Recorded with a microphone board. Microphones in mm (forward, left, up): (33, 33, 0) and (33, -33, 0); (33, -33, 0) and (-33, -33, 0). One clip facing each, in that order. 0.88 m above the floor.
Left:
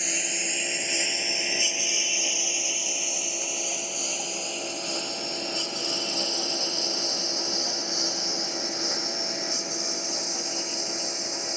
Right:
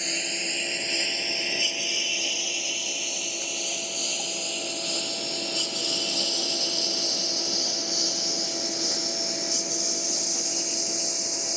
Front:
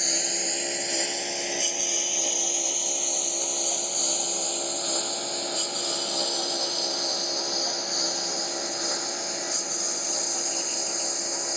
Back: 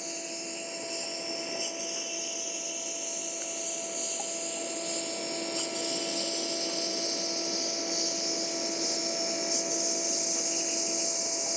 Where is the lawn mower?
5° left; by 11.6 s 35° left.